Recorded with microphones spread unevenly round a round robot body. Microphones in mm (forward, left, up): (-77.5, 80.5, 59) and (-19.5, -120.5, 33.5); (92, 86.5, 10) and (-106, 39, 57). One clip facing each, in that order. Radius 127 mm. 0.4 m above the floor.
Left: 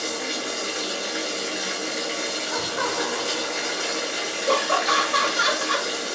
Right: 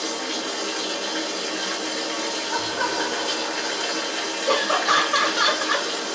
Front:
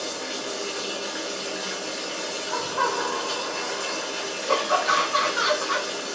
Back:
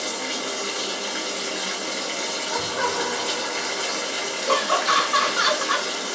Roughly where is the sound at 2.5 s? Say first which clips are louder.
Even, back 1 dB; behind left.